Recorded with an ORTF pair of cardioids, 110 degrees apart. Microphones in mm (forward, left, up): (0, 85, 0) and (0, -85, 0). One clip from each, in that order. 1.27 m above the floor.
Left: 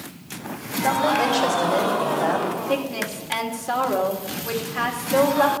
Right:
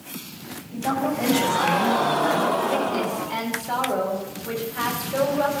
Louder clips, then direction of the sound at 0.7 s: Left 5 dB; 55° left.